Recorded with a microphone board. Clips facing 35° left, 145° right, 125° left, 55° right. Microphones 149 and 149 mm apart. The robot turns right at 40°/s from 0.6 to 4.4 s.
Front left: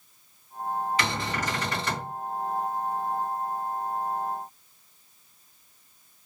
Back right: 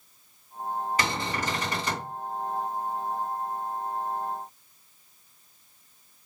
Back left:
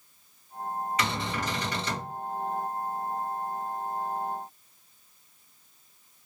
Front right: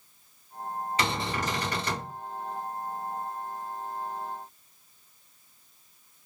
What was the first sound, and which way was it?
A cupboard door, 110° right.